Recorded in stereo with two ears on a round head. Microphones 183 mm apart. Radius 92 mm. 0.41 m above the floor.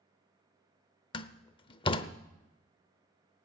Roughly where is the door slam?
Left.